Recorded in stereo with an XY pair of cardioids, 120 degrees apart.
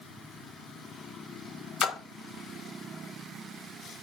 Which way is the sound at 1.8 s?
60° left.